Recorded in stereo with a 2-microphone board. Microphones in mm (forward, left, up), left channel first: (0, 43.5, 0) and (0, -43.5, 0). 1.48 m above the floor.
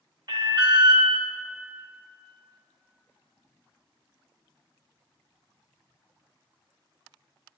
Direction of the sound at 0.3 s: 50° right (ahead or behind).